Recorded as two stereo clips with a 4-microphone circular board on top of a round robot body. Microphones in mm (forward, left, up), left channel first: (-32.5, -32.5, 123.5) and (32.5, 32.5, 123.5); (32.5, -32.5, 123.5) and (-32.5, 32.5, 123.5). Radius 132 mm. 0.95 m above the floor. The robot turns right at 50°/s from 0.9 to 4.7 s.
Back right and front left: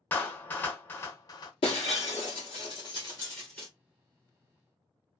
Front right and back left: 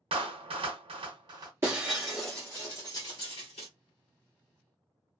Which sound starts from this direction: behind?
Breaking glass, at 1.6 s.